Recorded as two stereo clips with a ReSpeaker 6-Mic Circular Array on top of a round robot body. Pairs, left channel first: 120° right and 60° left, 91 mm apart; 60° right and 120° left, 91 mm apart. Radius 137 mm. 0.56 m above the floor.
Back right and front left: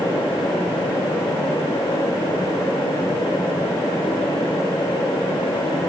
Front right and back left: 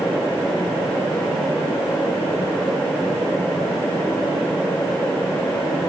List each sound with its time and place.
Only background noise.